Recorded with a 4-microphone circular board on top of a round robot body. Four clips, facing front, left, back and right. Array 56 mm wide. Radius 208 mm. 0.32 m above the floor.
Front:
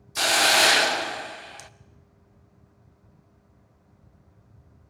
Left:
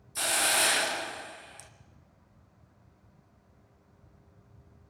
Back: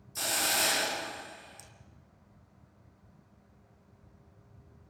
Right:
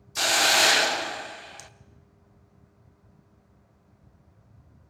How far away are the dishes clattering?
I don't hear dishes clattering.